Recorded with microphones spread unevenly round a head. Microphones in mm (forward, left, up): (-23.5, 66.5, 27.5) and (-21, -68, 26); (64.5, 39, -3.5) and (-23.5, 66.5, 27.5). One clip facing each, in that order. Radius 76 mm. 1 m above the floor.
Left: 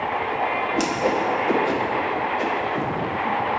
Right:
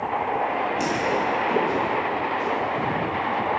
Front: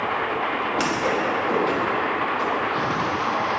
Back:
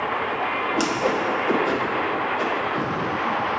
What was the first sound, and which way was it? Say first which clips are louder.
A whoosh: left 2 dB, back 1 dB; 105° left.